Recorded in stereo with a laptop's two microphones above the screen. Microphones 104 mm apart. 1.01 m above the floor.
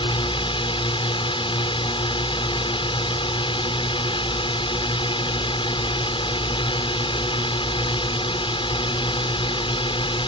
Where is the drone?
55° left (ahead or behind).